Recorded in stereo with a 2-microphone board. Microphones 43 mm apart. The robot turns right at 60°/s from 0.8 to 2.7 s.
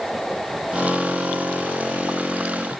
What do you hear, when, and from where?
Only background noise.